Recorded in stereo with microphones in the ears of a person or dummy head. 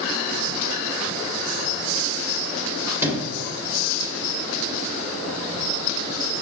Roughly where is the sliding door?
Centre.